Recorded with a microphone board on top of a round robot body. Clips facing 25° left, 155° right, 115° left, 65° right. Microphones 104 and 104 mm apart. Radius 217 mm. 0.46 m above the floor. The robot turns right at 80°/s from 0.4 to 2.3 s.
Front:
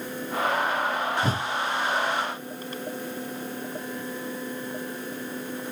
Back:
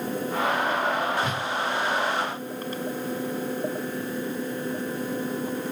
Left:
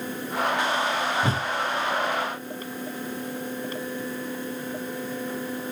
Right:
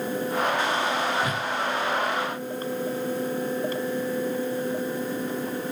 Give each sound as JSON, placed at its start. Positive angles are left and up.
{"t": 1.2, "sound": "a whoosh", "azimuth_deg": 60, "distance_m": 0.7}